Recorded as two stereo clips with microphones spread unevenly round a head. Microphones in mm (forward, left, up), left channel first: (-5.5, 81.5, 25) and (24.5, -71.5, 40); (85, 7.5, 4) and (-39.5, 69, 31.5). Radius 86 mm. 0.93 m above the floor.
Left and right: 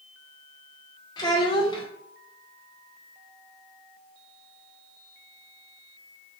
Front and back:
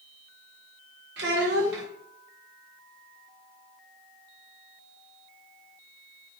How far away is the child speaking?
About 1.1 m.